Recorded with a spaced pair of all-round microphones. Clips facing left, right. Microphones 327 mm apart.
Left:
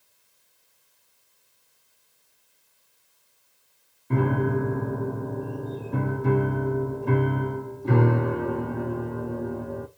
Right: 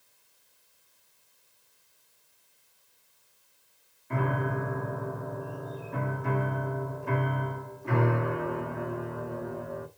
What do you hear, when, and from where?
4.1 s a piano: 45° left (ahead or behind), 0.8 m